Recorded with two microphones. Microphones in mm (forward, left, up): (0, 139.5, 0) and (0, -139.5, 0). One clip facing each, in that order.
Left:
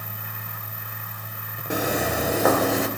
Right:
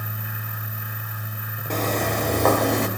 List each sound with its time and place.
1.7 s footsteps: 10° left (ahead or behind), 5 m; by 2.9 s centre (ahead or behind), 5 m